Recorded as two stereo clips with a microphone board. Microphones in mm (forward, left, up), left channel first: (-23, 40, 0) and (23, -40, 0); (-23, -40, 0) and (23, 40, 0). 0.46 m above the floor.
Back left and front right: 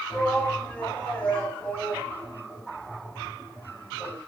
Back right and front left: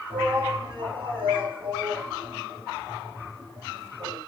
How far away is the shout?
About 3.5 m.